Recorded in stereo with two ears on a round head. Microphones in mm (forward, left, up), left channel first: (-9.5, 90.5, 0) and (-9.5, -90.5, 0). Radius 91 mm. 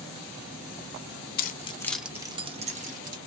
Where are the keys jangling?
45° left (ahead or behind), 0.5 m; by 3.2 s 40° right (ahead or behind), 1.1 m.